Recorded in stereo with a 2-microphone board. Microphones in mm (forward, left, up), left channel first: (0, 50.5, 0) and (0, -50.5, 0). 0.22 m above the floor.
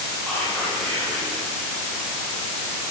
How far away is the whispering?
About 7 m.